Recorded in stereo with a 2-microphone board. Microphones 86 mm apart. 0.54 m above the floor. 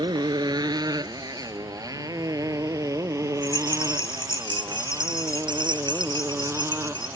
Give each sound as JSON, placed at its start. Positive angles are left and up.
{"t": 0.0, "sound": "a motorcycle", "side_deg": -55}
{"t": 3.4, "sound": "a rattle", "side_deg": -65}